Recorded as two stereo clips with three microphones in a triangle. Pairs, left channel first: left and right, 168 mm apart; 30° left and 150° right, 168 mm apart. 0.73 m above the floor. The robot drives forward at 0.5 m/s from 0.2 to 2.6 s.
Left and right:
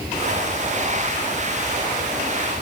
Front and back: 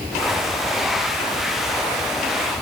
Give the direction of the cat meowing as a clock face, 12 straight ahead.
No cat meowing in this recording.